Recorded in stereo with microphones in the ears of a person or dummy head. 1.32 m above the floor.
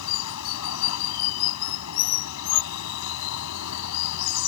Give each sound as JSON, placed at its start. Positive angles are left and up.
{"t": 0.0, "sound": "running water", "side_deg": 85}